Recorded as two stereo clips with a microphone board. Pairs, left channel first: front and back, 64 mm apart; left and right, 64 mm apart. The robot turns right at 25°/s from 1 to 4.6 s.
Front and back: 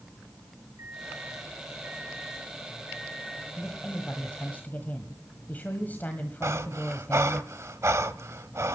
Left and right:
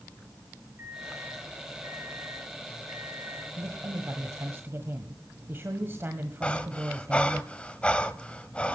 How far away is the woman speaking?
About 1.3 m.